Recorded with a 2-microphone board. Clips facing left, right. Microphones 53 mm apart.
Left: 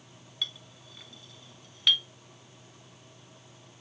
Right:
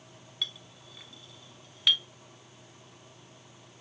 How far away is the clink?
About 0.8 m.